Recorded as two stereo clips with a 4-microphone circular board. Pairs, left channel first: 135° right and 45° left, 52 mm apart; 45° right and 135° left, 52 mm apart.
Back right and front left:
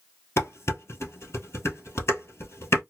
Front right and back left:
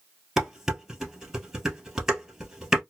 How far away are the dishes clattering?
About 1.5 m.